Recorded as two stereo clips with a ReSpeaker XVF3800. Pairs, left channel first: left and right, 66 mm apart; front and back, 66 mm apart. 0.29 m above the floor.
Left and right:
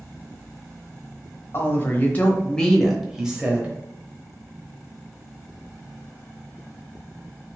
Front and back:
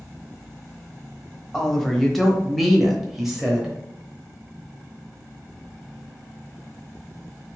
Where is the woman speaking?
80° left, 1.1 m; by 3.8 s 110° right, 1.0 m.